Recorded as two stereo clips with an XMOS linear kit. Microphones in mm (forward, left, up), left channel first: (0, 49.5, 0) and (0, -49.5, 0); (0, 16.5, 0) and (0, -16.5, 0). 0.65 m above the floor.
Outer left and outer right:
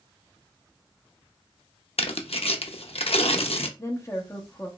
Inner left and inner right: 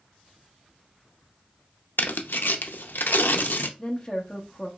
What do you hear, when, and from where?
2.0 s tearing paper: 90° left, 0.5 m
3.8 s a woman speaking: 30° left (ahead or behind), 1.1 m